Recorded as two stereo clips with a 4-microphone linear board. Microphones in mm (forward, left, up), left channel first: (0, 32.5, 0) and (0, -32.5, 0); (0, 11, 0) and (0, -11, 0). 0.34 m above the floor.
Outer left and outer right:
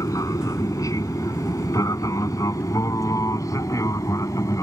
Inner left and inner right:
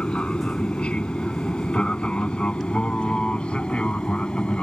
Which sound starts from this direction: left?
An aircraft, at 0.0 s.